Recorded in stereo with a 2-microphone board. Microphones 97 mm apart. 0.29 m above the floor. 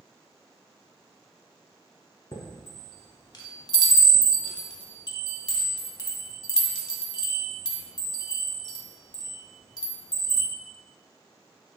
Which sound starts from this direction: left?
A chime, at 2.3 s.